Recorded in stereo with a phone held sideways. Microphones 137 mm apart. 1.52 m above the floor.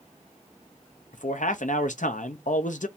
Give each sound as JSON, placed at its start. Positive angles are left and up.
{"t": 1.1, "sound": "a man speaking", "side_deg": 70, "distance_m": 0.7}